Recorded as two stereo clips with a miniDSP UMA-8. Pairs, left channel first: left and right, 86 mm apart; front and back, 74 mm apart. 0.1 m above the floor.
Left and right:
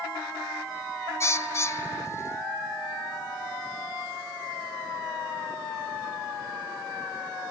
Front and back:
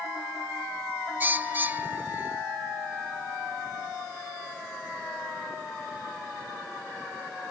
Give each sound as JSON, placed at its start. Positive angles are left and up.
{"t": 1.2, "sound": "a bird", "azimuth_deg": 130, "distance_m": 0.5}